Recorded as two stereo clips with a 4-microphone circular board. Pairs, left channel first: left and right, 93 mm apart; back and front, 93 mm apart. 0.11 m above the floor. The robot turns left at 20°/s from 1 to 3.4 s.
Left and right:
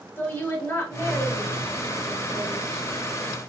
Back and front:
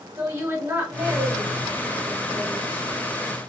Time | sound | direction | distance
0.2 | a woman speaking | 45° left | 2.0 m